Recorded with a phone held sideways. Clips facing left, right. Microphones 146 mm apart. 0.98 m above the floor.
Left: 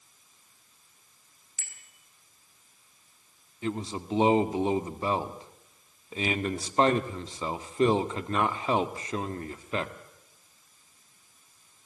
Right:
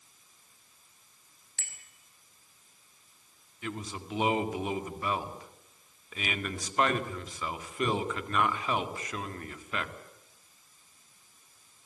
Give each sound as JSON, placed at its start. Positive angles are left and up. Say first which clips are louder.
{"t": 1.6, "sound": "a bicycle bell", "louder": "right 3 dB", "side_deg": -70, "distance_m": 5.0}
{"t": 3.6, "sound": "a man speaking", "louder": "left 6 dB", "side_deg": 30, "distance_m": 2.0}